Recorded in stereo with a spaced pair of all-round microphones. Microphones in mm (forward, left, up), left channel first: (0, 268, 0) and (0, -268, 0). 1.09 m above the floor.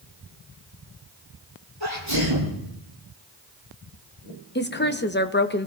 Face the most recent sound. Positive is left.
turn(degrees=20)  # may be behind; listen again after turning